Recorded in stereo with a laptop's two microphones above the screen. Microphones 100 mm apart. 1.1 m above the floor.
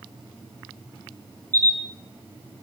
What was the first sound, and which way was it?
A camera shutter, 25° left (ahead or behind).